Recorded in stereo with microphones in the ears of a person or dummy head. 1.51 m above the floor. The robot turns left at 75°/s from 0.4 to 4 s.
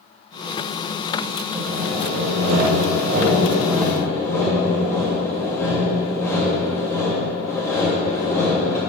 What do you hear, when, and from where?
1.5 s sawing: 10° right, 2.5 m; by 8.8 s 165° left, 2.5 m